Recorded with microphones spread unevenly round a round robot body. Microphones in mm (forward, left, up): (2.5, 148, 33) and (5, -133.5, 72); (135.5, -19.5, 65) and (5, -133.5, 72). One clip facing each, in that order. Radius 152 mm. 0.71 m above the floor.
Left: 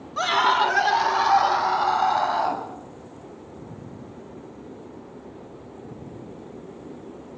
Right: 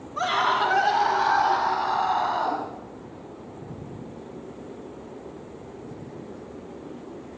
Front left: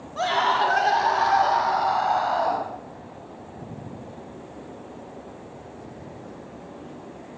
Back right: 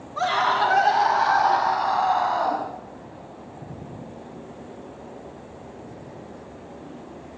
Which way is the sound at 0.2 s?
110° left.